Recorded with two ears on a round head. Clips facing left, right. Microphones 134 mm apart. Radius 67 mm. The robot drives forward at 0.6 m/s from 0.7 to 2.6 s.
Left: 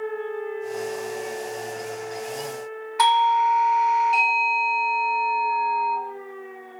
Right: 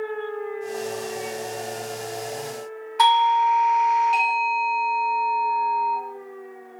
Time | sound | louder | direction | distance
3.0 | a doorbell | right 1 dB | 5° left (ahead or behind) | 1.6 m